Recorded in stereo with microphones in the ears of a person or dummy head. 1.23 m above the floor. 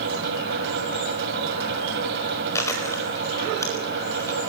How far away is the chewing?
About 4.5 m.